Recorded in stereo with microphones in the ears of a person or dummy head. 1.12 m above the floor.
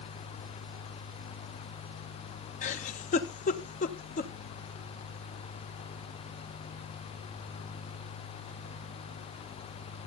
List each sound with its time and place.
2.6 s a giggle: 40° left (ahead or behind), 1.0 m